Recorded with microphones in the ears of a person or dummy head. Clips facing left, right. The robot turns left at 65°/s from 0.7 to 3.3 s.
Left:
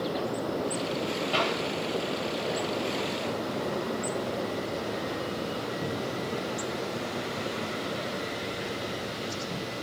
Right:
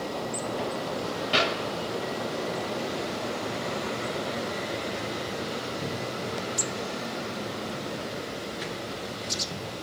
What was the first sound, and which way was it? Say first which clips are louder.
A clap: right 3 dB; 25° right (ahead or behind).